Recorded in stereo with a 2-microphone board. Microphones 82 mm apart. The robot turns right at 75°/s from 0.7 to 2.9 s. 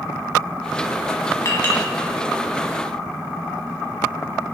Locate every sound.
1.4 s a clink: 40° left (ahead or behind), 1.6 m; by 1.9 s 10° left (ahead or behind), 1.6 m